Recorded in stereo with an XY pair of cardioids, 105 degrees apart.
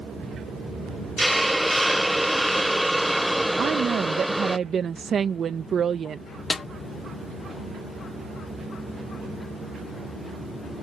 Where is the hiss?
5° right.